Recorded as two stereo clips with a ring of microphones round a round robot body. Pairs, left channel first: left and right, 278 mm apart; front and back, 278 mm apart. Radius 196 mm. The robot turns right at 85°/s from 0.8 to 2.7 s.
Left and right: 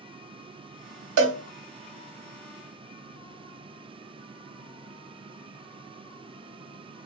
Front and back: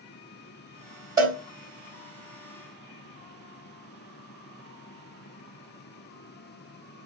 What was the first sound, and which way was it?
A cowbell, 100° right.